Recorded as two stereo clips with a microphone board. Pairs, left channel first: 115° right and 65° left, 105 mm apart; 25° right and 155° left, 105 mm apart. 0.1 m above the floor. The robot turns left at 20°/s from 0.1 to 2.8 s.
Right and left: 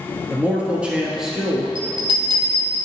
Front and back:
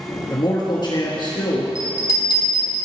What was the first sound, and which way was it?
A man speaking, 5° left.